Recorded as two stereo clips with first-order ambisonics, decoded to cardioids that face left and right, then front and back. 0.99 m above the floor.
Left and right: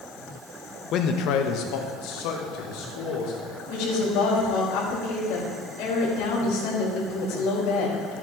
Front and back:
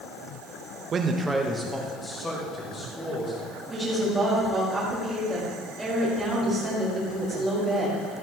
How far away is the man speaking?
About 0.9 m.